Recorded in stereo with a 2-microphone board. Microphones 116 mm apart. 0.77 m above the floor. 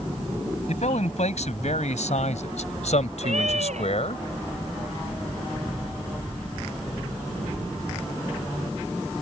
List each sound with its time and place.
0.7 s a man speaking: 75° left (ahead or behind); by 4.2 s 60° left (ahead or behind)
3.2 s a cat meowing: 80° right